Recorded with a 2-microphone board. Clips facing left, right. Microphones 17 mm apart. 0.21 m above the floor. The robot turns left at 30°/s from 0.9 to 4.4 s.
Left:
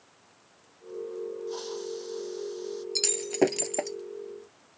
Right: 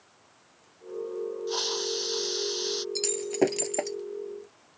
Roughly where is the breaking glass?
Left.